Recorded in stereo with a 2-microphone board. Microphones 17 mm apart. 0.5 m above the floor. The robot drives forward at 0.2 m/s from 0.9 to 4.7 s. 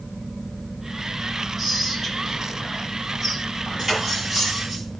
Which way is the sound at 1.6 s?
15° right (ahead or behind).